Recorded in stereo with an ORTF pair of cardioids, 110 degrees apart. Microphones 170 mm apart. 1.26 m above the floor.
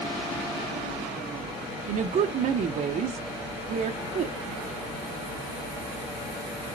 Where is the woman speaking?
50° right, 0.8 m.